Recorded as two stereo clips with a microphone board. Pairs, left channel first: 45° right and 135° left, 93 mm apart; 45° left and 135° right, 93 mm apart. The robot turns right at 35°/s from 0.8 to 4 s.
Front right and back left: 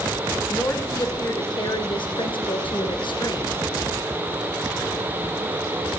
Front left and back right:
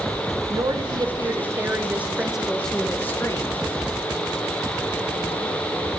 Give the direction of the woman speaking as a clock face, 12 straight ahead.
3 o'clock.